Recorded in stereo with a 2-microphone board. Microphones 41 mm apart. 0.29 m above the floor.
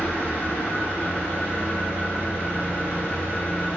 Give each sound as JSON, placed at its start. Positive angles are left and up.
{"t": 0.0, "sound": "an engine running", "side_deg": 70, "distance_m": 6.0}